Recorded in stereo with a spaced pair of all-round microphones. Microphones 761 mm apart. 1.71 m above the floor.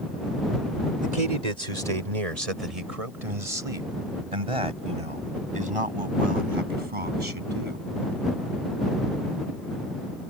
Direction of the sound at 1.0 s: 60° right (ahead or behind).